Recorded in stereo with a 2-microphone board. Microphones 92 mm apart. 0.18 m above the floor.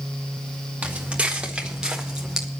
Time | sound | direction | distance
0.8 | footsteps | 15° right (ahead or behind) | 4.5 m